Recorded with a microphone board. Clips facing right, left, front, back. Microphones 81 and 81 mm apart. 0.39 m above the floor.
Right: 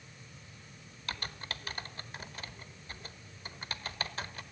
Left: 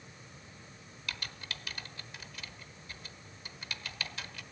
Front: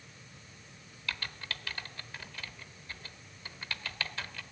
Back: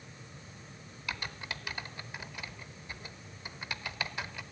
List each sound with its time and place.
1.1 s typing on a keyboard: 115° right, 1.0 m